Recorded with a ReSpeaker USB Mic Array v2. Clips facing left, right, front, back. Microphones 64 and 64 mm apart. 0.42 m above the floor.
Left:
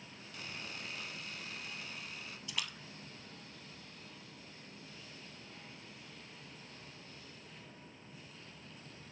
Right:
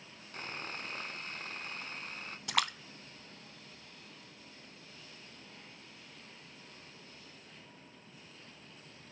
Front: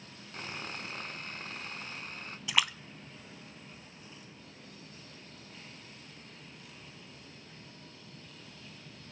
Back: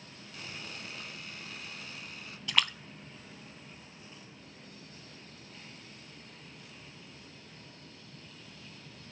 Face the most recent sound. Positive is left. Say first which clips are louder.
# right 11 dB, even
turn(degrees=-80)